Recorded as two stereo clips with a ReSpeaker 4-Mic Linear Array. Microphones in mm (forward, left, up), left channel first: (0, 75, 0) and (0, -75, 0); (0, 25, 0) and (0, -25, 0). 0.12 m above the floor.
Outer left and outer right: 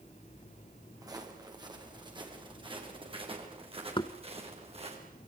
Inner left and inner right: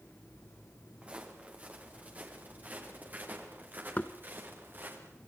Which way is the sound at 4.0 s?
30° left (ahead or behind).